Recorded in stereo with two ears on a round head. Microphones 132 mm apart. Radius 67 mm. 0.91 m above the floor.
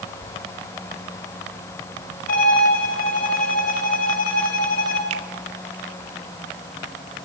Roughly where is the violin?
Left.